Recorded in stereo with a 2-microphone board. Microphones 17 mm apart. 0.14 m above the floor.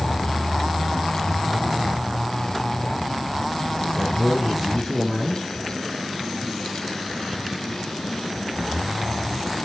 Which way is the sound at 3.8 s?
20° right (ahead or behind).